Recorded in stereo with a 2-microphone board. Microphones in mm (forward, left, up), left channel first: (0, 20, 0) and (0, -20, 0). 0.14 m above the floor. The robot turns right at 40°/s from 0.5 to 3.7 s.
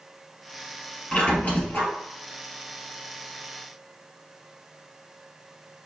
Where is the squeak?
40° left, 1.6 m; by 1.9 s 70° left, 1.6 m.